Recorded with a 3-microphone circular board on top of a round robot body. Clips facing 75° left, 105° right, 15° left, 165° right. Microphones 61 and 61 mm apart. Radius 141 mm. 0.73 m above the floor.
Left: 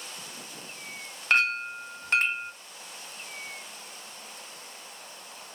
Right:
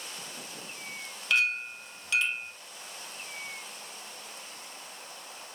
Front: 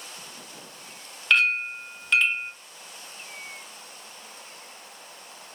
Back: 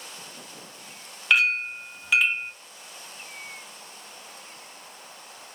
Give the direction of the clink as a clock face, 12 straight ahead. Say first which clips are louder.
Left 3 dB, even; 8 o'clock.